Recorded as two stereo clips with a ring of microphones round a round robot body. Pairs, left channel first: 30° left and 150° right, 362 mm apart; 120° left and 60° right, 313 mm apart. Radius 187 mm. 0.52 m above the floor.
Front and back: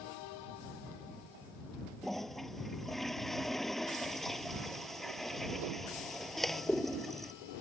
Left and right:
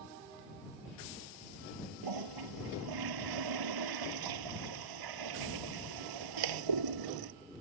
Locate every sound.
2.0 s a toilet flushing: 60° right